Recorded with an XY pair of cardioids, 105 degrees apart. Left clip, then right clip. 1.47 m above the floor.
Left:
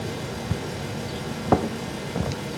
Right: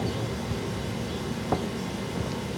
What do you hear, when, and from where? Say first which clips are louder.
0.0 s a fan: even; 60° left, 0.9 m